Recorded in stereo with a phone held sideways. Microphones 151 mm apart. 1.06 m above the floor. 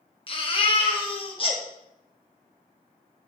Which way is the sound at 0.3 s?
40° left (ahead or behind).